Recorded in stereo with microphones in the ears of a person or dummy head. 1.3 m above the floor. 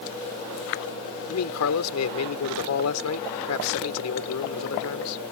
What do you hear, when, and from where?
1.3 s a man speaking: 90° left